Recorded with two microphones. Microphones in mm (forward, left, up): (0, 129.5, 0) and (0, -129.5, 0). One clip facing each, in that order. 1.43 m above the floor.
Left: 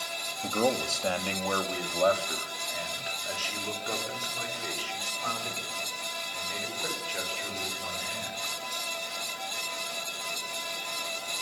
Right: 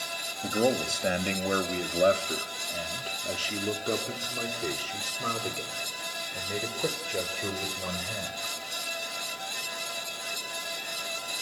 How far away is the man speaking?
About 1.9 m.